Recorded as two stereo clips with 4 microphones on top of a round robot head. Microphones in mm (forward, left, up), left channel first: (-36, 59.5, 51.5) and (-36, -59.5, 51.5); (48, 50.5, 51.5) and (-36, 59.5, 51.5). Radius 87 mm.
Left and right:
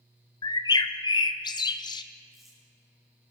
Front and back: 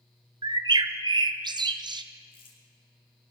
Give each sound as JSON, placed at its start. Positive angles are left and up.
{"t": 0.4, "sound": "a bird", "azimuth_deg": 145, "distance_m": 0.8}
{"t": 2.3, "sound": "crumpling", "azimuth_deg": 0, "distance_m": 3.0}